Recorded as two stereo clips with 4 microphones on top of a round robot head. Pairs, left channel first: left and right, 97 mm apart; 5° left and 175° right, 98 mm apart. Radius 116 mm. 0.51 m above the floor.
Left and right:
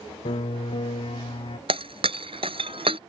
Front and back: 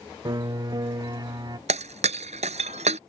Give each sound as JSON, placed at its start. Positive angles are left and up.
{"t": 0.2, "sound": "a piano", "azimuth_deg": 135}
{"t": 1.7, "sound": "breaking glass", "azimuth_deg": -140}